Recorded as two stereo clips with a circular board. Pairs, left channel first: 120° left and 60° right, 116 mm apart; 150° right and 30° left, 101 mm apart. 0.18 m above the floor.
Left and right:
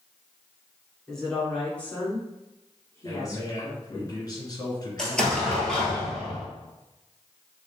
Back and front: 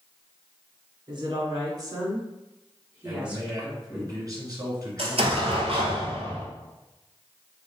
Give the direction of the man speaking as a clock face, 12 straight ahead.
10 o'clock.